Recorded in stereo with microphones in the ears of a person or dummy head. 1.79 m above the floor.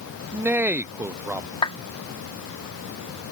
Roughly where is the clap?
Left.